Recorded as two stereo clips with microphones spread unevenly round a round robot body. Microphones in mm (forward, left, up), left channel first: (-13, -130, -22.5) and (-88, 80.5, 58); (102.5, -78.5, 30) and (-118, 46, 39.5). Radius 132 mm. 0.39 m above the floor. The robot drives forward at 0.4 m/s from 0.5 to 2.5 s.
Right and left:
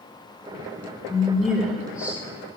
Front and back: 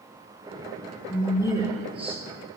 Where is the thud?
No thud in this recording.